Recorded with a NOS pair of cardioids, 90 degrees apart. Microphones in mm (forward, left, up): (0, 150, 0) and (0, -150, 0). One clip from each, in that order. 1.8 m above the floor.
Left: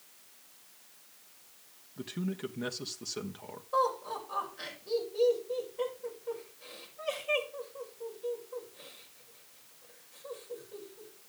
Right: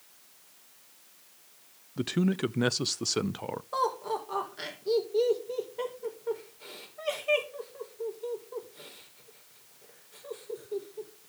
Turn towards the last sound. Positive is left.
turn(degrees=-60)